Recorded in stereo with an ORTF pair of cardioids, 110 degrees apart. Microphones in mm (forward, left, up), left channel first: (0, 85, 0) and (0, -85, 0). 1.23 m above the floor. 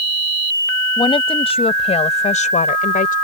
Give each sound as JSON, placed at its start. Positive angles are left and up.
{"t": 1.0, "sound": "a woman speaking", "azimuth_deg": 30}